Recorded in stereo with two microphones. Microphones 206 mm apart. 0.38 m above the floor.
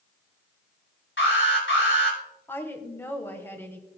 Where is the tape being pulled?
I don't hear tape being pulled.